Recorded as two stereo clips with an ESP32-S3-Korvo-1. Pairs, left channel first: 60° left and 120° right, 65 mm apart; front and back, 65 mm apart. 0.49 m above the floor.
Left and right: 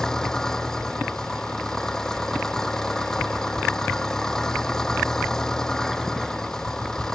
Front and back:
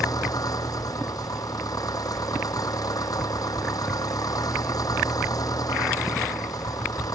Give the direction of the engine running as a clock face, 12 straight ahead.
1 o'clock.